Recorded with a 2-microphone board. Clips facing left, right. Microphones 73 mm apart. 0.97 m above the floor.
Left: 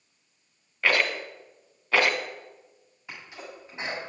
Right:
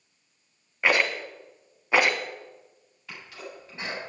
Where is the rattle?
15° right (ahead or behind), 1.5 m.